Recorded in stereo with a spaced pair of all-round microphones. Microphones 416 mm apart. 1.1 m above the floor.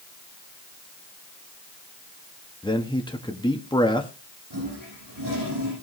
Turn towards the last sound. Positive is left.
turn(degrees=-70)  # may be behind; listen again after turning